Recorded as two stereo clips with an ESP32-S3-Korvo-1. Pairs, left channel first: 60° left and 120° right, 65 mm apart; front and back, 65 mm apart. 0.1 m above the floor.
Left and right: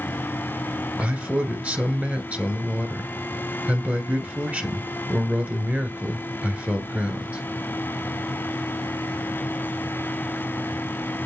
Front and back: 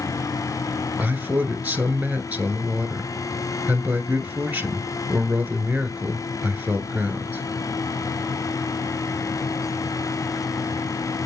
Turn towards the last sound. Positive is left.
turn(degrees=-155)